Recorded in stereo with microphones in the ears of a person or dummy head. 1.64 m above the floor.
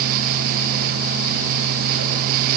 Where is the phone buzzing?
I don't hear a phone buzzing.